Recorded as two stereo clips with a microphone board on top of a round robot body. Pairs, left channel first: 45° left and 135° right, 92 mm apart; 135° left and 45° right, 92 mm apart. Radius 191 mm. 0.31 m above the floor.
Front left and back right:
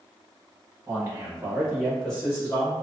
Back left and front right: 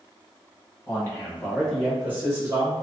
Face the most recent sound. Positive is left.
turn(degrees=-10)